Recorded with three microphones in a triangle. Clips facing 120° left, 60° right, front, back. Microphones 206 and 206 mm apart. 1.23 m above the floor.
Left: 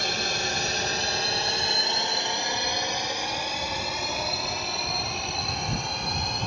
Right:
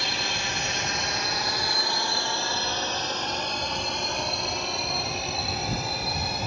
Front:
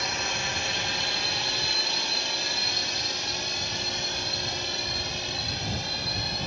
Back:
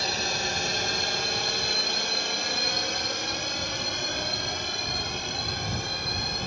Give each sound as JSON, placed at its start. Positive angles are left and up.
{"t": 0.0, "sound": "a drone", "azimuth_deg": 140}